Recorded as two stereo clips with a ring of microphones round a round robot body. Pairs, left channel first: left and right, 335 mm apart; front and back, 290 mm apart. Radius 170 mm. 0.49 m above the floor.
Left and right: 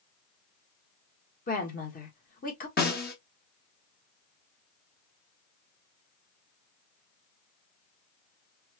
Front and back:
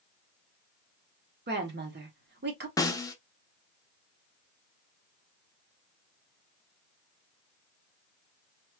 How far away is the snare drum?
About 0.9 m.